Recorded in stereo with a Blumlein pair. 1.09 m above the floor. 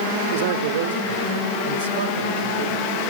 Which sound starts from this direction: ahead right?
A man speaking, at 0.3 s.